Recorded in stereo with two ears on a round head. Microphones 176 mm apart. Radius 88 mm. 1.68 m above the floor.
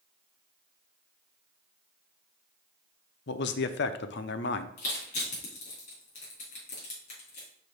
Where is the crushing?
40° left (ahead or behind), 4 m.